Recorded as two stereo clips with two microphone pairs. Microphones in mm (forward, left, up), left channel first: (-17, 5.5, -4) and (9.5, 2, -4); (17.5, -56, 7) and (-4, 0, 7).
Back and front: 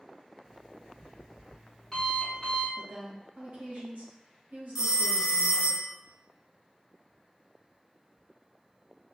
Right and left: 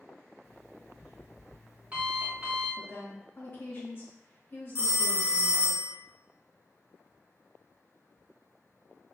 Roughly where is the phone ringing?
Right.